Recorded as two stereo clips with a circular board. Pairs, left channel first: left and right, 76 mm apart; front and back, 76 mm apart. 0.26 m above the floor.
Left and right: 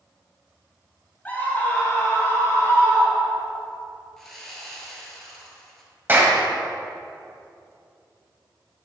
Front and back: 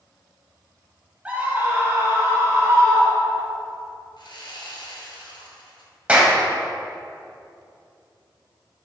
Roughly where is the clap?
Behind right.